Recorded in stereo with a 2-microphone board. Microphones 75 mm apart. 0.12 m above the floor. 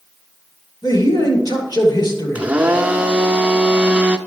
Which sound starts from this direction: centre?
A blender, at 2.4 s.